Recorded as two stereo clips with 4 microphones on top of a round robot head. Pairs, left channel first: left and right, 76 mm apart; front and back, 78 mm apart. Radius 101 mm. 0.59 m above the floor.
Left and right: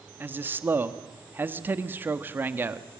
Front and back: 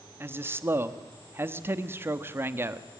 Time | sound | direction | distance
0.2 | a man speaking | 135° right | 1.5 m